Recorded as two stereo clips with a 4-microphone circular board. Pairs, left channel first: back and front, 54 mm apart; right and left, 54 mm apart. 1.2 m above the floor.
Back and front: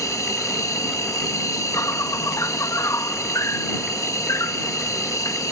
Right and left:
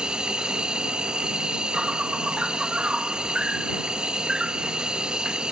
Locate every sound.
0.0 s an insect: 165° left